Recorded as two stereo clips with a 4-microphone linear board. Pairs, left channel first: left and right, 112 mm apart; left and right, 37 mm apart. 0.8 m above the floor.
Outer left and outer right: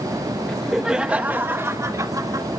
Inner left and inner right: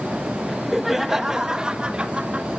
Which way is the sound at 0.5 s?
5° left (ahead or behind).